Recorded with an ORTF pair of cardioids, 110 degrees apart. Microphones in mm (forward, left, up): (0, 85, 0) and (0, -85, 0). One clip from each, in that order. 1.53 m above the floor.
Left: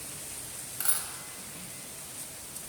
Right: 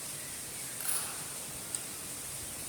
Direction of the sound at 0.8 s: 50° left.